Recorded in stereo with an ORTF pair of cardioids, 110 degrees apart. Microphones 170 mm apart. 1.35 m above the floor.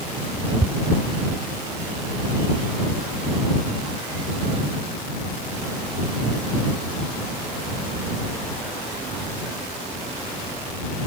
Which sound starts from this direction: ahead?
Ticking, at 0.6 s.